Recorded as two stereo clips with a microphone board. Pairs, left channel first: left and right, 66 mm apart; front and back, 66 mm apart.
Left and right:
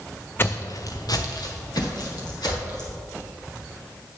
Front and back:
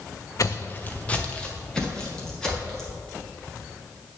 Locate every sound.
0.4 s footsteps: 30° left, 0.6 m; by 3.0 s 85° left, 4.5 m